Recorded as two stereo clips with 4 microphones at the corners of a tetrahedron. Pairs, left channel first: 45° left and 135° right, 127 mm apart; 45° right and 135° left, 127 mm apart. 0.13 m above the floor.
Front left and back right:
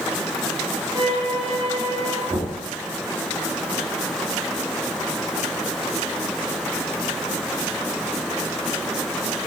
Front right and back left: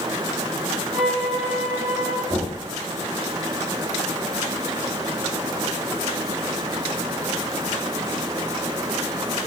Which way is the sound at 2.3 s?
175° left.